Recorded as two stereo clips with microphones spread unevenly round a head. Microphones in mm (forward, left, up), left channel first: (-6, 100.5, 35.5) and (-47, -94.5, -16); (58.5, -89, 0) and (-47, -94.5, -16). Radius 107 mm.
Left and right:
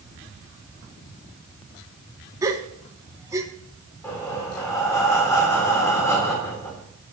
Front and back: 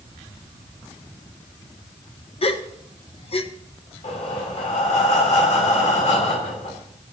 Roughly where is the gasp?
Ahead right.